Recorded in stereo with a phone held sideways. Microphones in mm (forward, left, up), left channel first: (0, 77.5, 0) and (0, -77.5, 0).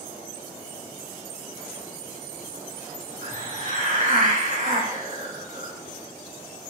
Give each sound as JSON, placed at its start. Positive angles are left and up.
{"t": 3.2, "sound": "a hiss", "side_deg": -60, "distance_m": 3.5}